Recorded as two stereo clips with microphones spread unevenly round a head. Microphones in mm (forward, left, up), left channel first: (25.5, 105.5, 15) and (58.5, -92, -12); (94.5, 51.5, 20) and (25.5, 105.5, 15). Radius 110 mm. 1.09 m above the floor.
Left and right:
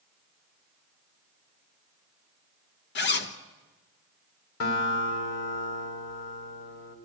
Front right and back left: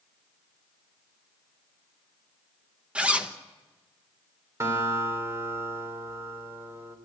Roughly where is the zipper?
Ahead left.